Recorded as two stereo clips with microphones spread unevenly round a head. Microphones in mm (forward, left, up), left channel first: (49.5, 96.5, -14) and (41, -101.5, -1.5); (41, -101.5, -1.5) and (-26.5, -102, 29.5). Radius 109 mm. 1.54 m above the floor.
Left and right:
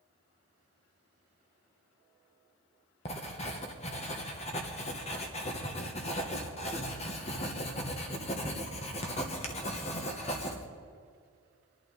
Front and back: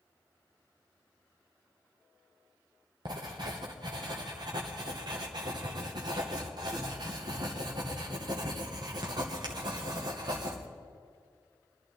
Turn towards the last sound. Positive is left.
turn(degrees=150)